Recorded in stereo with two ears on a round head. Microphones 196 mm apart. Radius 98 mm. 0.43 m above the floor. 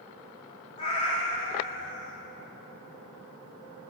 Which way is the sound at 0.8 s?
25° left (ahead or behind).